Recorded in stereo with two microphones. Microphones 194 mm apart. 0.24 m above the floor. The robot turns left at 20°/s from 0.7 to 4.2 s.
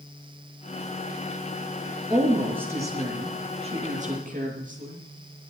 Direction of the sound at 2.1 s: Straight ahead.